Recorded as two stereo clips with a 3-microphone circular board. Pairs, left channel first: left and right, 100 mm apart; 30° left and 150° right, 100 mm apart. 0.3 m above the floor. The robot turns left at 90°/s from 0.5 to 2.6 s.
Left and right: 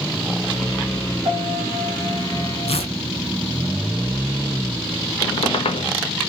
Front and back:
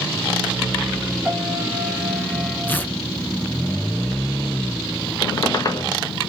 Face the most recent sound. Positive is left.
turn(degrees=80)